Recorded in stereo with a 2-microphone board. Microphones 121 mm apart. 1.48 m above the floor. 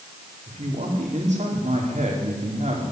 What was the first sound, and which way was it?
A man speaking, 75° right (ahead or behind).